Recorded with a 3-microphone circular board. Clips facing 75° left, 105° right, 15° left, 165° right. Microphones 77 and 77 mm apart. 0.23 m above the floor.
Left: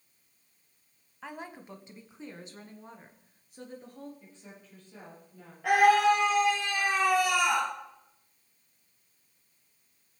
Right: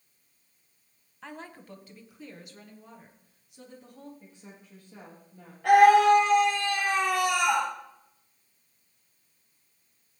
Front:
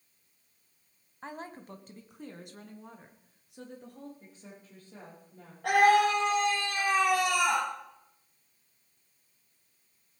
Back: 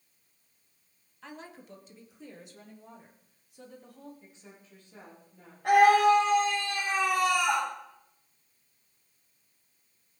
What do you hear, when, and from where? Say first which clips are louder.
1.2 s a woman speaking: left 1 dB, front 4 dB; 5° right, 1.4 m; by 4.1 s 25° left, 4 m
4.2 s a woman speaking: right 1 dB, front 2 dB; 30° right, 8 m
5.6 s a scream: right 5 dB, back 3 dB; 10° right, 7 m